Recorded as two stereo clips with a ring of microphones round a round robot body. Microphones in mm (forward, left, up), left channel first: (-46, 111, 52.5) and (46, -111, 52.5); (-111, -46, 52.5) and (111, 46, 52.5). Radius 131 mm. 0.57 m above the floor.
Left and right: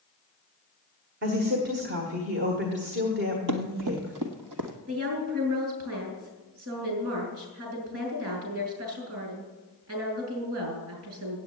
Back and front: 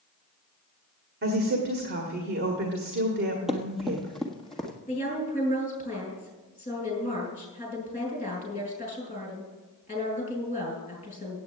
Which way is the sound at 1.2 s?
25° right.